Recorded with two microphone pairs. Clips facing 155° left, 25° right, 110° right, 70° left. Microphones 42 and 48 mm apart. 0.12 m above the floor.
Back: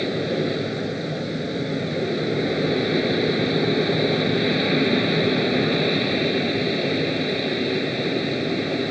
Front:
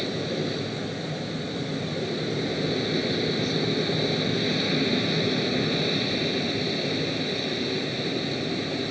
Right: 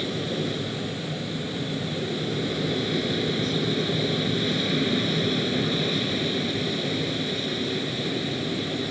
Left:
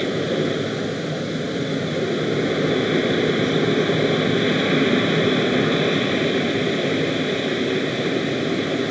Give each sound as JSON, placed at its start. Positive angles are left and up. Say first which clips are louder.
{"t": 0.0, "sound": "an aircraft", "louder": "back 5 dB, left 7 dB", "azimuth_deg": 105}